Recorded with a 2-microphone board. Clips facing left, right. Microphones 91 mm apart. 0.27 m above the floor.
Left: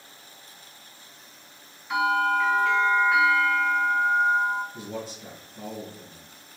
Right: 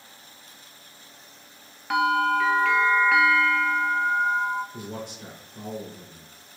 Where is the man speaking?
65° right (ahead or behind), 2.5 m.